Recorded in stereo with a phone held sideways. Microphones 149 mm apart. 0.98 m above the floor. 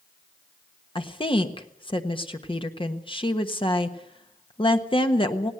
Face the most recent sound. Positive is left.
turn(degrees=35)  # may be behind; listen again after turning